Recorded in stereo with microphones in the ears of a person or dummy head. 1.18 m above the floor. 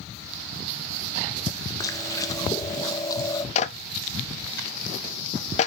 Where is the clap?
40° left (ahead or behind), 0.8 m.